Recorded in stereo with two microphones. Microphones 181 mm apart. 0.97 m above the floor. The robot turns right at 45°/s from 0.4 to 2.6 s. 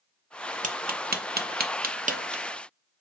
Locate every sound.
0.6 s tapping: 45° right (ahead or behind), 0.5 m; by 2.4 s 40° right (ahead or behind), 0.5 m